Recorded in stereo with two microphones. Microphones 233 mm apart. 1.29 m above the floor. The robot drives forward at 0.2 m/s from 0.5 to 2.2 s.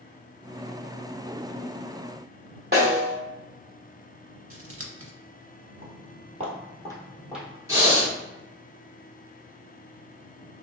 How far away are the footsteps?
About 1.6 m.